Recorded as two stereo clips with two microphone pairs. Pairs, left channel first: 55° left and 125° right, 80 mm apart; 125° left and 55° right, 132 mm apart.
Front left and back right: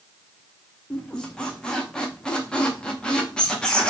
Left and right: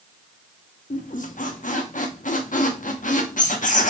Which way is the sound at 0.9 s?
135° left.